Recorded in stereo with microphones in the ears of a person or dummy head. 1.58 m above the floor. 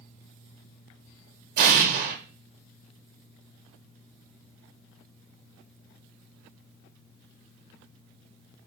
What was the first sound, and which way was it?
An explosion, 50° right (ahead or behind).